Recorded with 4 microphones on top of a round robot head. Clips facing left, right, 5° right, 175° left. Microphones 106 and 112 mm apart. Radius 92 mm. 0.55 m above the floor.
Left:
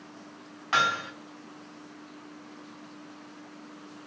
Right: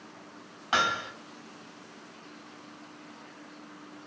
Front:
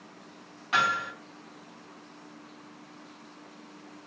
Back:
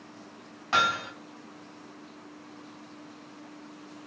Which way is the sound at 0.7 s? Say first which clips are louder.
Left 1 dB, back 1 dB; 145° right.